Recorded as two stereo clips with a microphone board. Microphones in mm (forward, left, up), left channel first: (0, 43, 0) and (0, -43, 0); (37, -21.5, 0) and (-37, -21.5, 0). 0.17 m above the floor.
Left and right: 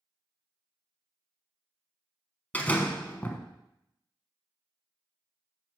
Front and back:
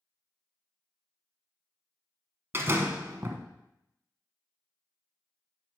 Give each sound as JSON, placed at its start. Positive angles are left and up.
{"t": 2.5, "sound": "a door slam", "azimuth_deg": 150, "distance_m": 1.0}